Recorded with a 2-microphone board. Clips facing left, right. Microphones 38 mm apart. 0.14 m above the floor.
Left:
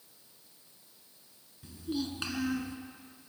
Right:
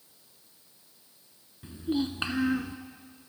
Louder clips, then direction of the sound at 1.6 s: Right 6 dB; 30° right (ahead or behind).